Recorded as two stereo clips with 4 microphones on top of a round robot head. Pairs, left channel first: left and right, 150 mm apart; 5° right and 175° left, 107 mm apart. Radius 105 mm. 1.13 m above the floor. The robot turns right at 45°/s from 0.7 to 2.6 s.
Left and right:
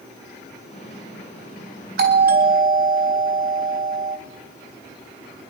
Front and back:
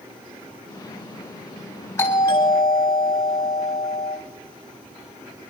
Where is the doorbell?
80° right, 3.5 m; by 4.2 s 50° right, 3.5 m.